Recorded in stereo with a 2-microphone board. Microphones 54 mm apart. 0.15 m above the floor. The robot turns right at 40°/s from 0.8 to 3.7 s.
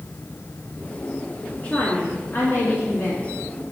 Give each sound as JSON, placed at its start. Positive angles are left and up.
{"t": 1.6, "sound": "a woman speaking", "azimuth_deg": 30, "distance_m": 2.5}